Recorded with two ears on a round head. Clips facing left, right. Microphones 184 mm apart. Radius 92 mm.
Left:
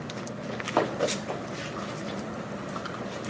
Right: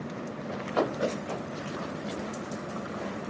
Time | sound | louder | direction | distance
0.5 | running footsteps | left 1 dB | 65° left (ahead or behind) | 4 m